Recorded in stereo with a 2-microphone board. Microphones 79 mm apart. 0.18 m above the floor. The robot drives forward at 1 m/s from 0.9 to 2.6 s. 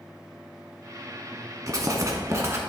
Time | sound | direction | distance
1.7 | writing | 45° right (ahead or behind) | 0.9 m